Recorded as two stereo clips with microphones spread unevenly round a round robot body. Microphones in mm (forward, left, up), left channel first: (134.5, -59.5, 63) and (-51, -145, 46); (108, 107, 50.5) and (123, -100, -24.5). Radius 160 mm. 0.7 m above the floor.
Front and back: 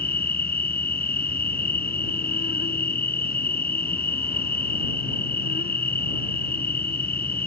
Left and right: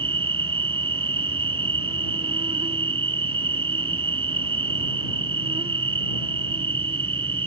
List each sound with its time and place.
0.0 s an insect: 20° right